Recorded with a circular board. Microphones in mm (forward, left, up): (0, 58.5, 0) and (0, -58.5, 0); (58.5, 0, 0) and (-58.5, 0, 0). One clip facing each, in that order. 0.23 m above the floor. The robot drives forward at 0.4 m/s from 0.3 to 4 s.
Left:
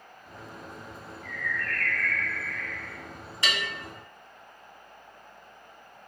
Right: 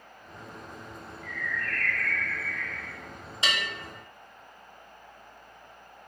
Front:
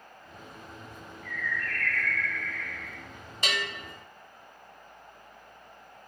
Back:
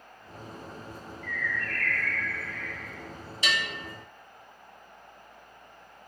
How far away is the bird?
About 0.8 m.